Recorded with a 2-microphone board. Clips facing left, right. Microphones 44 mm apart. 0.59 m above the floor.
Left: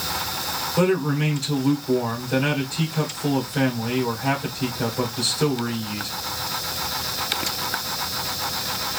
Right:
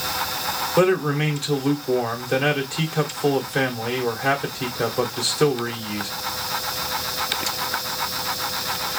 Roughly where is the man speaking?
Right.